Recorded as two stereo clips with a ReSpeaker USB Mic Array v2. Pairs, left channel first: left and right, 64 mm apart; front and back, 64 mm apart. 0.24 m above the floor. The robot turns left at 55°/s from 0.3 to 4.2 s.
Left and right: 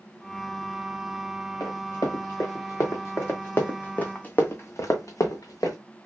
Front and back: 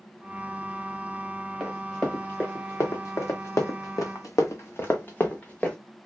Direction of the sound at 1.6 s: 100° left.